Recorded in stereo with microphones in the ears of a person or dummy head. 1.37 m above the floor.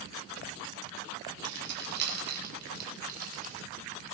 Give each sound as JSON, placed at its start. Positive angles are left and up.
{"t": 1.4, "sound": "keys jangling", "side_deg": -70, "distance_m": 4.0}